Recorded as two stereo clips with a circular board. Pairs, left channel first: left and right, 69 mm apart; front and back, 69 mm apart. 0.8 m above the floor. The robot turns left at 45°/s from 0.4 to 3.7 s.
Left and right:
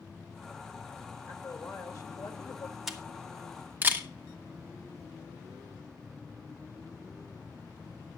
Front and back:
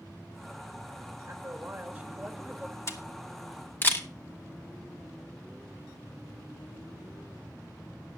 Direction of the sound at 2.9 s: 5° right.